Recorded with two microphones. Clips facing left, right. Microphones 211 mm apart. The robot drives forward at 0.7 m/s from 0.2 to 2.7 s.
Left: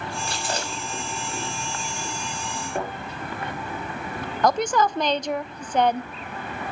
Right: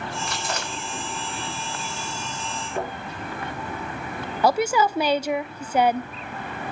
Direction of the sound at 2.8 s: 55° left (ahead or behind).